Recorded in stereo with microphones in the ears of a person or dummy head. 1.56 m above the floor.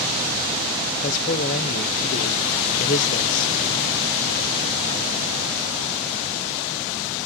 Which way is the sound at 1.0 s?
45° left (ahead or behind).